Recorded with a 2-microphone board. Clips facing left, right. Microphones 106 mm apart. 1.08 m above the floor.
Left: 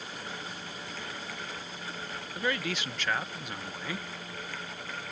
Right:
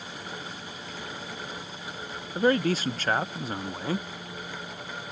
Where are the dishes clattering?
I don't hear dishes clattering.